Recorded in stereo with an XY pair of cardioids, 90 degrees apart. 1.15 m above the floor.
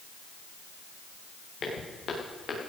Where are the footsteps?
65° left, 6.5 m.